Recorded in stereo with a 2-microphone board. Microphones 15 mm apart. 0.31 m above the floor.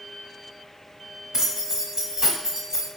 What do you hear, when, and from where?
1.3 s keys jangling: 50° right (ahead or behind), 1.1 m